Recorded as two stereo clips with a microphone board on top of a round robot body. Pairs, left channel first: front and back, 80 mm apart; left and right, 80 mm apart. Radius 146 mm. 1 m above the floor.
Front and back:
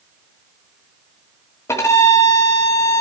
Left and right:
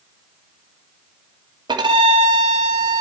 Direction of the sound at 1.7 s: 60° right.